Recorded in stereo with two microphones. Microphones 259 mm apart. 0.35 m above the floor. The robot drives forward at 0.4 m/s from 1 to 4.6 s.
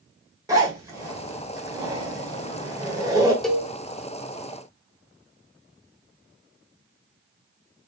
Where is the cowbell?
Centre (ahead or behind), 0.8 m.